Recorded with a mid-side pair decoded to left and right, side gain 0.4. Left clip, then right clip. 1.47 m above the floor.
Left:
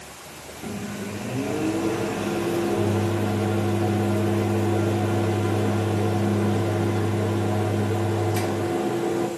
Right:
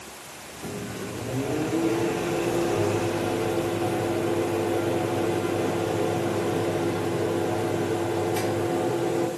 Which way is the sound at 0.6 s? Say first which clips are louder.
Left 1 dB; 30° left.